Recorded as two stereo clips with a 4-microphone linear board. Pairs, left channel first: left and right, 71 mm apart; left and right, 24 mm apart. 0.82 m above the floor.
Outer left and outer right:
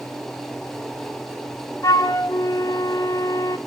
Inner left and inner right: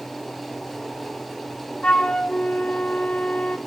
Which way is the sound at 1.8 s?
45° left (ahead or behind).